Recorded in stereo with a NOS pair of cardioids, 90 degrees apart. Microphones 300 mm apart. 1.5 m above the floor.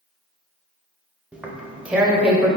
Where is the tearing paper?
5° right, 0.5 m.